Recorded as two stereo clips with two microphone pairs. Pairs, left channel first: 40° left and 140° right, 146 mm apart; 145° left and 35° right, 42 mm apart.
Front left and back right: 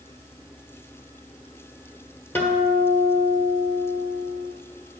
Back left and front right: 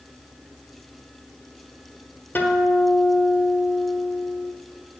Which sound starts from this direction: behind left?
A guitar, at 2.4 s.